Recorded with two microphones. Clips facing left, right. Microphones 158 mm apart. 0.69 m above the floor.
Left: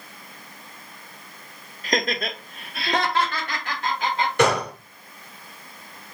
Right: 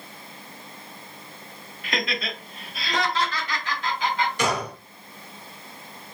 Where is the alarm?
I don't hear an alarm.